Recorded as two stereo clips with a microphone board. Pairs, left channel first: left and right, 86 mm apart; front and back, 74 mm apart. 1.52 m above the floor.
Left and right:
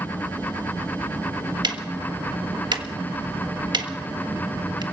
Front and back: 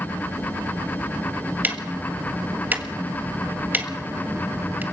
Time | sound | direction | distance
1.6 | ticking | 115° right | 1.5 m